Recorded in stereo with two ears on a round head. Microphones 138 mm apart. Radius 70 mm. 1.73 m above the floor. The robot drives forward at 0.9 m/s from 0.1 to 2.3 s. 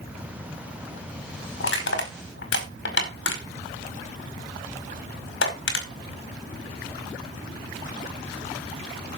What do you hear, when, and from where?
1.6 s crushing: 75° left (ahead or behind), 5 m; by 5.9 s 80° left, 5 m